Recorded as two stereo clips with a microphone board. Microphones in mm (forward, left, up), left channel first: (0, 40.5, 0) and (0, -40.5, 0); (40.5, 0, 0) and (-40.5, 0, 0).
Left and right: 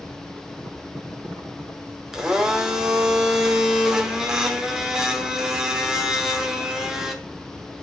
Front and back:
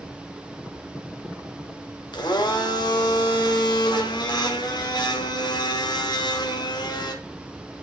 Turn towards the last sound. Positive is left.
turn(degrees=-5)